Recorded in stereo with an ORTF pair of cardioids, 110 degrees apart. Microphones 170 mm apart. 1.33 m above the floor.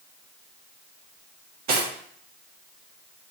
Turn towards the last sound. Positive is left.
turn(degrees=-65)